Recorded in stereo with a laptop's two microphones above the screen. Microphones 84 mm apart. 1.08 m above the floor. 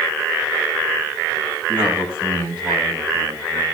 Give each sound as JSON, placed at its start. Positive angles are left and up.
{"t": 1.7, "sound": "a man speaking", "side_deg": -75, "distance_m": 8.0}